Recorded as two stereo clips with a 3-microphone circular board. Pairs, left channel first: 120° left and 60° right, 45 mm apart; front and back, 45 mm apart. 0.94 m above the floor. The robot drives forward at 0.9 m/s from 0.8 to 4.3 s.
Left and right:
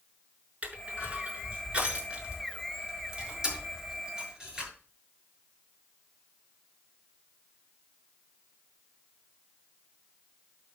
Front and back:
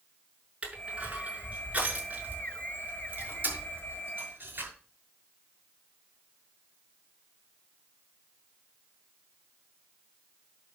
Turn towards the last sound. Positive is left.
turn(degrees=-135)